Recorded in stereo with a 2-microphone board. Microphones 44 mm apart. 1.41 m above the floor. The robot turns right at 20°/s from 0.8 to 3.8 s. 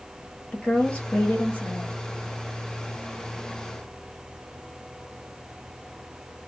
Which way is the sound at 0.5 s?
30° left (ahead or behind).